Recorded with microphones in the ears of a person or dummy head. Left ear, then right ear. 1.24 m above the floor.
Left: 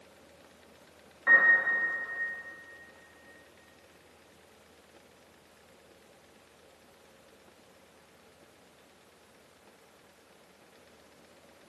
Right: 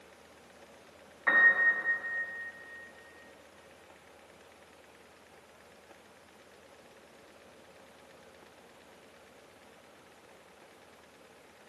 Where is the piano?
15° right (ahead or behind), 1.7 m.